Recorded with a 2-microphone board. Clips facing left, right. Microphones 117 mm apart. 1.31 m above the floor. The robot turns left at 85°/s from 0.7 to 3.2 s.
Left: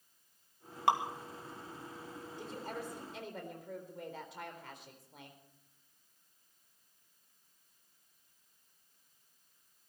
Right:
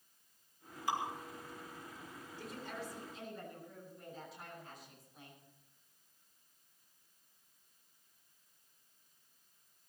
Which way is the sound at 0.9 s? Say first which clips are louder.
Left 7 dB; 70° left (ahead or behind).